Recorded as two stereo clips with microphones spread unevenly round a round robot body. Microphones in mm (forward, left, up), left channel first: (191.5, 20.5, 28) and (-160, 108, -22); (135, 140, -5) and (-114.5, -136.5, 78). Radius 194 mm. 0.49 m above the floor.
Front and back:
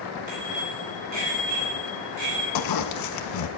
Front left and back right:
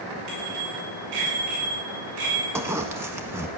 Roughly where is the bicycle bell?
Behind.